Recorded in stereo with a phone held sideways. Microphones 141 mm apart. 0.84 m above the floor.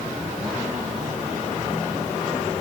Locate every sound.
Only background noise.